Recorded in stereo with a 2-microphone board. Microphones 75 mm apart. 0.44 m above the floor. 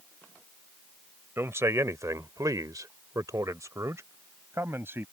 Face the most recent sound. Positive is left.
turn(degrees=-30)  # may be behind; listen again after turning